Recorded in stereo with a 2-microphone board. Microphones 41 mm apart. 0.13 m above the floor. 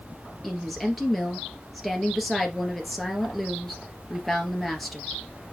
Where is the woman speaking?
Centre (ahead or behind), 2.5 m.